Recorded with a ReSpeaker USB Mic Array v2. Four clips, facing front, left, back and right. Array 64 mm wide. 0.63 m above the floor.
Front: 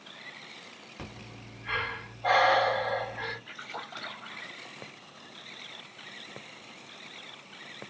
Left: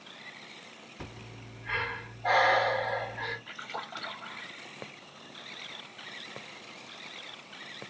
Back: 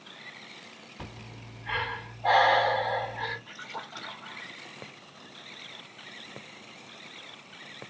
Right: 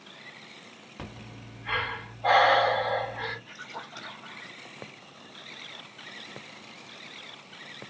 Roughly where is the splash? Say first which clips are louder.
Left 2 dB, even; ahead left.